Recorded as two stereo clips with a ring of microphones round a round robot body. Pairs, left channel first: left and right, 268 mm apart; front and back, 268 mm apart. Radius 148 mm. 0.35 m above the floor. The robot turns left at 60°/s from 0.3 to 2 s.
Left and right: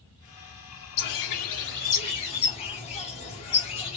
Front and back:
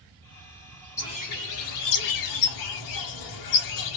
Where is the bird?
80° left, 0.6 m; by 4.0 s 20° left, 0.6 m.